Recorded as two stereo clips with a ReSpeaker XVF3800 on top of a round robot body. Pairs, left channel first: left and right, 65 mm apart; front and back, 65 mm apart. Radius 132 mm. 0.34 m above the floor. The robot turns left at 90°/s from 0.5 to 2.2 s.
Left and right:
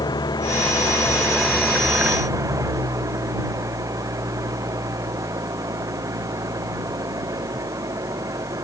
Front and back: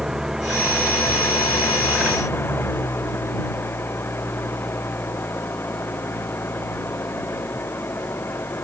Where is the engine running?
95° left; by 8.6 s 55° right.